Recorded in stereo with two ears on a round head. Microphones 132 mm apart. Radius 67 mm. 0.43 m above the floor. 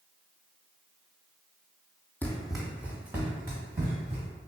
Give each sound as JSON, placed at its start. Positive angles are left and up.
{"t": 2.2, "sound": "running footsteps", "side_deg": 10, "distance_m": 0.6}